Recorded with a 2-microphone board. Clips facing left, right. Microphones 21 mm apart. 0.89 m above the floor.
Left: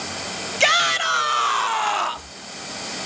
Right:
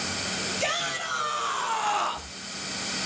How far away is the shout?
About 1.2 m.